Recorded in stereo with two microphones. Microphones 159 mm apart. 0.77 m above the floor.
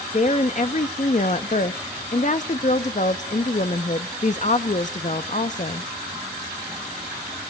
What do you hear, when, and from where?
0.1 s a woman speaking: 45° left (ahead or behind), 0.6 m